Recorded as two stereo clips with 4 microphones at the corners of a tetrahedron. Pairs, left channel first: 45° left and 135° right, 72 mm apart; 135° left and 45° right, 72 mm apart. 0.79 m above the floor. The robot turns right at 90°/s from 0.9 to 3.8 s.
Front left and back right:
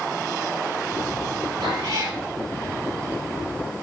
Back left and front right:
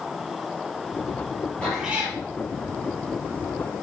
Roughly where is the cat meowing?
Behind right.